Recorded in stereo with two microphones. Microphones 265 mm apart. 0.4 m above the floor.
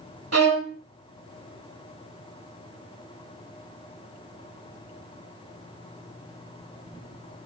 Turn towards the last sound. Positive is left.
turn(degrees=-70)  # may be behind; listen again after turning